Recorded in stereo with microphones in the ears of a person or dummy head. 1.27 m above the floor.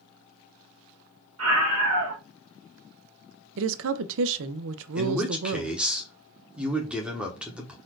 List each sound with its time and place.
1.4 s a scream: 80° right, 1.4 m
3.6 s a woman speaking: 75° right (ahead or behind), 0.5 m
5.0 s a man speaking: 5° right (ahead or behind), 0.9 m